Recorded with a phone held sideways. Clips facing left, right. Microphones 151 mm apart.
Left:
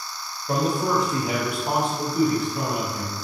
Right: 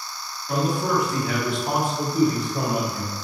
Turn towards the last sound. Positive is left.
turn(degrees=-55)  # may be behind; listen again after turning